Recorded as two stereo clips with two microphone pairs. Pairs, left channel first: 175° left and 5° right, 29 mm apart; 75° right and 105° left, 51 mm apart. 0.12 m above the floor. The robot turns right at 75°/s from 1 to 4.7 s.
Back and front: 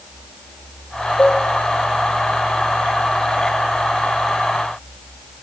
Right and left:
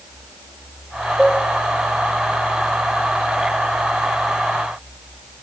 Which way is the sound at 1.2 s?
165° right.